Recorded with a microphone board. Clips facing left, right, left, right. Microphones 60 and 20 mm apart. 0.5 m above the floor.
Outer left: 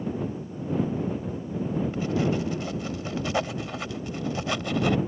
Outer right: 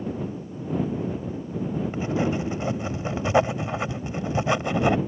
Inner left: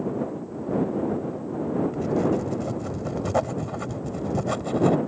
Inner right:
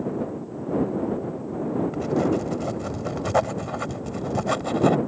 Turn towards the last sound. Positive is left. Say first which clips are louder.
# outer right 2 dB, inner right 2 dB
turn(degrees=-25)  # may be behind; listen again after turning